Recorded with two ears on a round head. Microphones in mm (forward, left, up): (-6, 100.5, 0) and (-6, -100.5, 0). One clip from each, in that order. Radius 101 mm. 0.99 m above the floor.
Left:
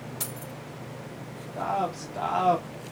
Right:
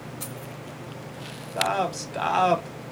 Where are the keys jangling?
55° left (ahead or behind), 3 m.